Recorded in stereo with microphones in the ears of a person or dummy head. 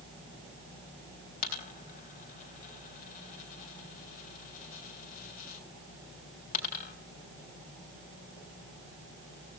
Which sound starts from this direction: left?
A dropped coin, at 1.4 s.